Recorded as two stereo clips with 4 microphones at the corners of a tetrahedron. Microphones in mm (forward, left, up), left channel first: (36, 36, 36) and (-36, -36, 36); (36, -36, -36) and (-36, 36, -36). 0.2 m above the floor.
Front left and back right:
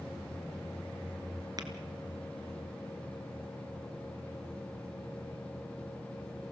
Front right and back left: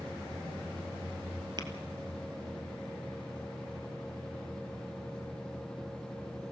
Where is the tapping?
175° left, 2.5 m.